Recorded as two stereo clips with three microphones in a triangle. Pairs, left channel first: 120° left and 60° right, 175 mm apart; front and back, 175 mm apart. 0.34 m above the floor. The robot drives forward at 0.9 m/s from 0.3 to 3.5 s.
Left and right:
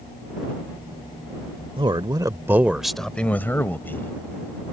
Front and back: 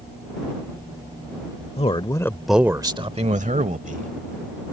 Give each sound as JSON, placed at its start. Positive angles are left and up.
{"t": 1.8, "sound": "a man speaking", "azimuth_deg": -20}